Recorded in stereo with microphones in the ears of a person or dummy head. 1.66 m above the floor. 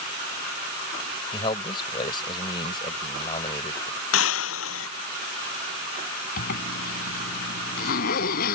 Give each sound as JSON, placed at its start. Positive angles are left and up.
{"t": 1.3, "sound": "a man speaking", "side_deg": 25}
{"t": 4.1, "sound": "breaking glass", "side_deg": 80}
{"t": 6.4, "sound": "a zipper", "side_deg": 55}